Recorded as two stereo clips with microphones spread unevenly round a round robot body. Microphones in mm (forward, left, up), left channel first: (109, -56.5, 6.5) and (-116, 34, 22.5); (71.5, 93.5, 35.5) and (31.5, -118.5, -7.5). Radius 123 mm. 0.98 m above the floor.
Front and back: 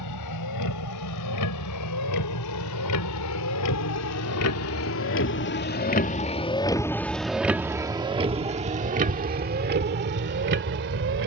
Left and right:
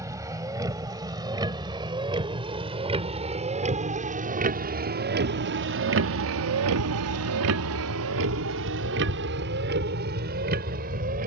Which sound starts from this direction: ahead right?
A vehicle, at 0.0 s.